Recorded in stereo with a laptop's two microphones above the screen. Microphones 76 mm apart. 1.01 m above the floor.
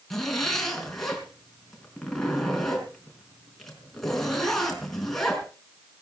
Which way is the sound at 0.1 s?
5° left (ahead or behind).